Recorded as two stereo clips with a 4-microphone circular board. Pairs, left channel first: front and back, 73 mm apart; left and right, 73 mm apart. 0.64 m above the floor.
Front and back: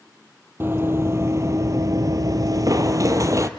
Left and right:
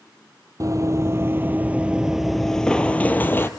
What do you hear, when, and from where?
0.6 s running footsteps: 125° right, 1.2 m; by 3.5 s 145° left, 1.2 m